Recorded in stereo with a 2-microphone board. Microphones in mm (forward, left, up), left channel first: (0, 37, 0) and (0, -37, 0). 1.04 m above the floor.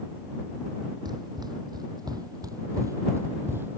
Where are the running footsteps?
70° right (ahead or behind); by 3.8 s 25° right (ahead or behind).